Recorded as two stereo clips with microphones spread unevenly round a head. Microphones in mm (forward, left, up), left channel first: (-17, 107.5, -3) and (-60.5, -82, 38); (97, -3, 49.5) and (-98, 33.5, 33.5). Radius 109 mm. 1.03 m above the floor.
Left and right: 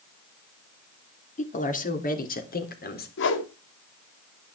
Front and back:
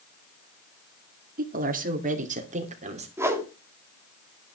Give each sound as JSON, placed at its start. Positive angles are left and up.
{"t": 1.4, "sound": "a woman speaking", "azimuth_deg": 125, "distance_m": 3.0}
{"t": 3.2, "sound": "a whoosh", "azimuth_deg": 95, "distance_m": 2.0}